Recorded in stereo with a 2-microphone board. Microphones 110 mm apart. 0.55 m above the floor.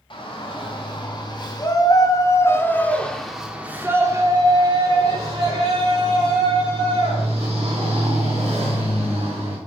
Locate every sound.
0.1 s a shout: 55° left (ahead or behind), 2 m; by 9.6 s 80° right, 3.5 m